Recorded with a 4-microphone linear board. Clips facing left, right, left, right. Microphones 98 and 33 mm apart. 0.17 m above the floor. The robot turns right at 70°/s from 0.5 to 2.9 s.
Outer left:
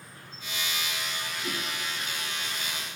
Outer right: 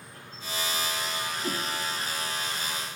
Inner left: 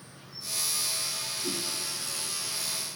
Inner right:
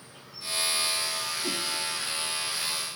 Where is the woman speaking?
I don't hear a woman speaking.